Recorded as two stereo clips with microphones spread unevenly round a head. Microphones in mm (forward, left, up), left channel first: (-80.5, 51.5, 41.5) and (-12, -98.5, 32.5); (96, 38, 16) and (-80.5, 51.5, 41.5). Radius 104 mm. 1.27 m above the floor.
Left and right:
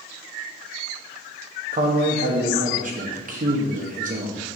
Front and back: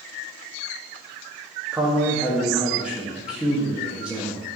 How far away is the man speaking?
About 0.8 m.